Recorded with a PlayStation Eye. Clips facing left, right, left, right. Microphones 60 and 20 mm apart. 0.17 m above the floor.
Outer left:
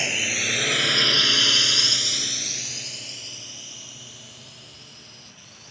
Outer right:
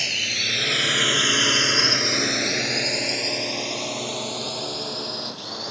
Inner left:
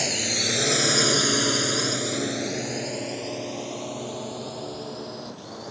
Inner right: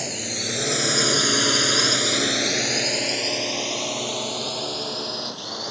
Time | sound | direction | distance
0.0 | a drone | 20° left (ahead or behind) | ?